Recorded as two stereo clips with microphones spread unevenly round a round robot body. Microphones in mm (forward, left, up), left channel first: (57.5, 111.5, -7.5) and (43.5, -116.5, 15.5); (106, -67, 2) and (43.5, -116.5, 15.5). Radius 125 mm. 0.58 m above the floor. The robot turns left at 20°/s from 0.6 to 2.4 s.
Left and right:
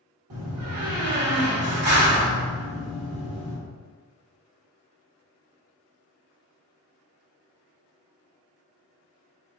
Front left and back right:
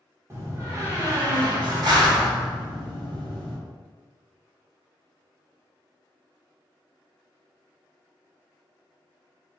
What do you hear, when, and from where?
0.3 s a door slam: 85° right, 1.4 m; by 3.6 s 120° right, 1.4 m